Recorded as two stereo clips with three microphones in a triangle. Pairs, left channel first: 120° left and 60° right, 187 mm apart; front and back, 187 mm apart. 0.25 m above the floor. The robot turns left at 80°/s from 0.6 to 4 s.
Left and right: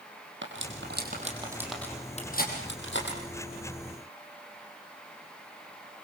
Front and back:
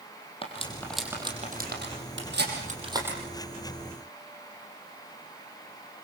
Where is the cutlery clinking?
60° right, 4.5 m; by 3.2 s 95° left, 4.5 m.